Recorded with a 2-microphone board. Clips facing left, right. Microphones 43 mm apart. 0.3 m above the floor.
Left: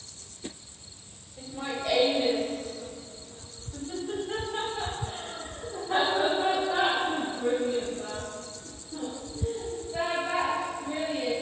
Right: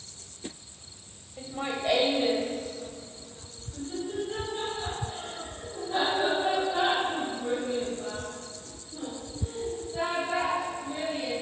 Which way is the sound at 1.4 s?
35° right (ahead or behind).